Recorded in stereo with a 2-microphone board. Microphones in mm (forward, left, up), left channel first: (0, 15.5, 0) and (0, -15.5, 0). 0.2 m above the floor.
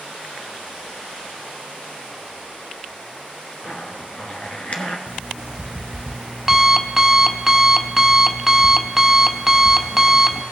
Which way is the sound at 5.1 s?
10° right (ahead or behind).